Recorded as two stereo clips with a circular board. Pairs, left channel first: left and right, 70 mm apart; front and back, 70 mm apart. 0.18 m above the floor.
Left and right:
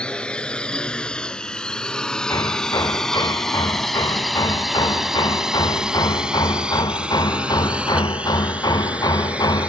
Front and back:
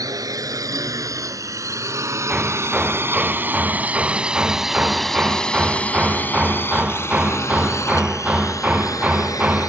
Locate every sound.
0.0 s a drone: 165° left; by 9.7 s 20° right
2.3 s hammering: 105° left